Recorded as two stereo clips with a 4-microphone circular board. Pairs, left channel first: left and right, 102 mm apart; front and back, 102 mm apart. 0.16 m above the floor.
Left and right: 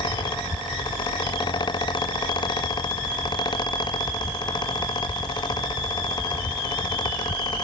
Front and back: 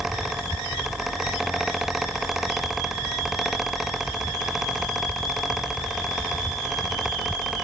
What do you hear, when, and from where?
Only background noise.